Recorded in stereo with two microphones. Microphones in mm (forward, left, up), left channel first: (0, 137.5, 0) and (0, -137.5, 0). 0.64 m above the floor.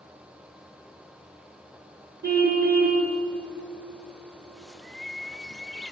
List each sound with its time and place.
2.2 s a car horn: 35° right (ahead or behind), 3.5 m
4.5 s a bird: centre (ahead or behind), 0.6 m